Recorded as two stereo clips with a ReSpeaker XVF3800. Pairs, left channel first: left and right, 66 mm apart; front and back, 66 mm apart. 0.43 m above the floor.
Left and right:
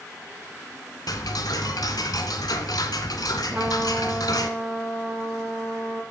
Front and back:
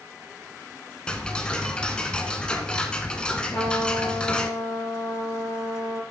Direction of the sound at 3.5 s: 40° right.